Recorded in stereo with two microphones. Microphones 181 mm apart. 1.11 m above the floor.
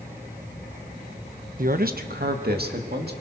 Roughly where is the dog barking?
I don't hear a dog barking.